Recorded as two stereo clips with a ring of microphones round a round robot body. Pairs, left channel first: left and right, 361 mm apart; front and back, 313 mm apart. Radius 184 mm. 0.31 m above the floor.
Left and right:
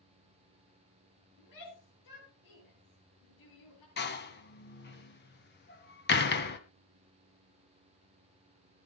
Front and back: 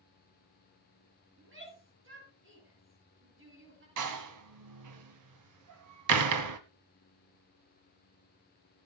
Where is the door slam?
155° left, 1.7 m.